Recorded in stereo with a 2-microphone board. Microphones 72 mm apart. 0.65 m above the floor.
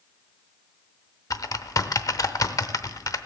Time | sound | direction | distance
1.3 | typing on a keyboard | 50° left (ahead or behind) | 0.7 m